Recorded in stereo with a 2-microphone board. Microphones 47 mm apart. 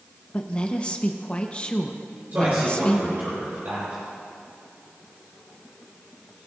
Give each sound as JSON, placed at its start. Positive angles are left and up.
{"t": 0.3, "sound": "a woman speaking", "side_deg": 25, "distance_m": 0.9}
{"t": 2.3, "sound": "a man speaking", "side_deg": -50, "distance_m": 4.0}